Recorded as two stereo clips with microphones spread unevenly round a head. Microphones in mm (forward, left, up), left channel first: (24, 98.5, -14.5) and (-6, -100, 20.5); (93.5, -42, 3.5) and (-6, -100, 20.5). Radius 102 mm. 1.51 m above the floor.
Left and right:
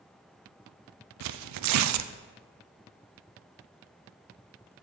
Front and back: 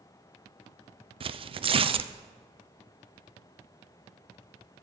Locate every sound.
1.2 s tearing paper: 105° right, 0.5 m